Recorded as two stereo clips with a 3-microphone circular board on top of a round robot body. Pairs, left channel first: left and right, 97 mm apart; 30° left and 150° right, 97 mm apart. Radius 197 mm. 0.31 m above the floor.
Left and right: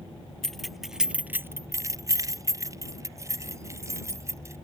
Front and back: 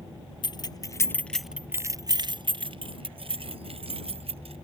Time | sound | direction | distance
0.4 | keys jangling | 5° left | ?